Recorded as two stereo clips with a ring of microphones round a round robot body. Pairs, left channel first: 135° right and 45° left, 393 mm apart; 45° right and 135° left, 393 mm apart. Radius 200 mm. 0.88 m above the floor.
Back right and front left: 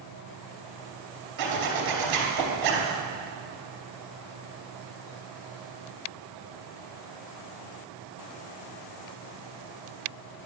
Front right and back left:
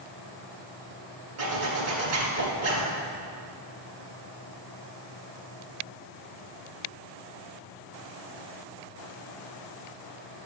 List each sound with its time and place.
1.4 s a zipper: 80° left, 2.5 m